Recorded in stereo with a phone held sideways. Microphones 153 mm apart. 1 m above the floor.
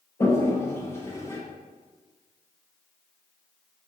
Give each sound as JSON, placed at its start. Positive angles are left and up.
{"t": 0.2, "sound": "a toilet flushing", "side_deg": 15, "distance_m": 0.6}